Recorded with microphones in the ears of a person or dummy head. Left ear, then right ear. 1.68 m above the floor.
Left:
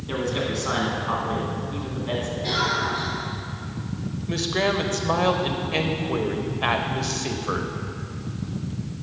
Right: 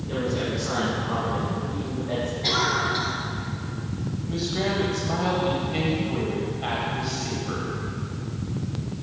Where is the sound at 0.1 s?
75° left (ahead or behind), 2.5 m.